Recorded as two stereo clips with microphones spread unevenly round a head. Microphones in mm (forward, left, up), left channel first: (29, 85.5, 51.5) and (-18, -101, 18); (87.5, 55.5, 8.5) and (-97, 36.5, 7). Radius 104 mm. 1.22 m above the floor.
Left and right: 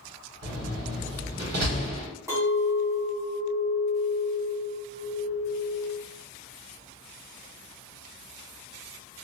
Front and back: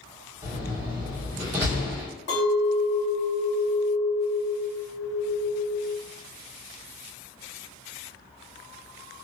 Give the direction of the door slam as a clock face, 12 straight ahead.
3 o'clock.